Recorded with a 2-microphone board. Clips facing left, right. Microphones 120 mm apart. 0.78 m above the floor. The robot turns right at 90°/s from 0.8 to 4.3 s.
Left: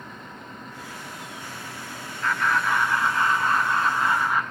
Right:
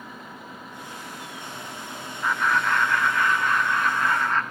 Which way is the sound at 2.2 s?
15° right (ahead or behind).